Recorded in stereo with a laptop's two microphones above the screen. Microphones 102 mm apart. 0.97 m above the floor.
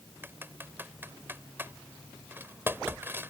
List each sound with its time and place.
0.2 s typing on a keyboard: 20° right (ahead or behind)